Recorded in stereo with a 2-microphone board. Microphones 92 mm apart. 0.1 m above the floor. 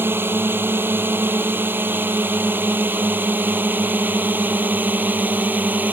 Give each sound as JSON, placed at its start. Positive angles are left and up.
{"t": 0.0, "sound": "a drone", "side_deg": -25}